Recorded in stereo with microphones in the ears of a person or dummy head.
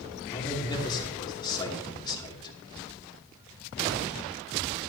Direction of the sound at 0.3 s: 20° left (ahead or behind).